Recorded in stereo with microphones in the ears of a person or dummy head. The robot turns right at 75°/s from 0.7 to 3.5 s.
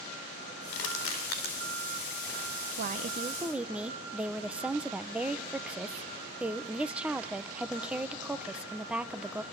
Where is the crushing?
70° left (ahead or behind), 4 m; by 1.6 s 40° left (ahead or behind), 4 m.